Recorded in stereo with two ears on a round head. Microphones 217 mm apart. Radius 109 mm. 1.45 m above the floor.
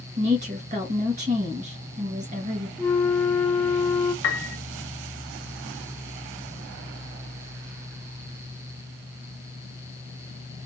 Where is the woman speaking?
30° right (ahead or behind), 2 m.